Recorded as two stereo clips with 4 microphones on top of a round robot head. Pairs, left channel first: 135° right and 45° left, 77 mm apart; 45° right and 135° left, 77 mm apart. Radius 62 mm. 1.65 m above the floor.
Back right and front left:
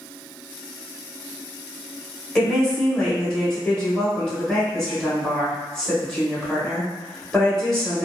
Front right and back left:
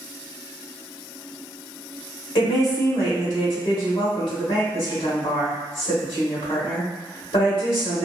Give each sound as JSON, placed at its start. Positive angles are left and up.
{"t": 2.4, "sound": "a woman speaking", "azimuth_deg": -55, "distance_m": 1.3}